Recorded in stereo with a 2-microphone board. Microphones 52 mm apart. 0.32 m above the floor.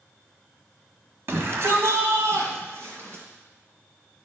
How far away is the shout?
About 1.6 m.